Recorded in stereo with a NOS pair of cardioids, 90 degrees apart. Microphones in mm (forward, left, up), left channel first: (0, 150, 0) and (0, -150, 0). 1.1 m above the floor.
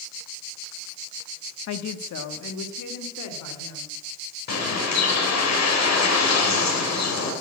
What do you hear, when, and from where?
1.7 s a woman speaking: 60° left, 1.1 m; by 4.0 s 75° left, 4 m
4.5 s a bird: 60° left, 4 m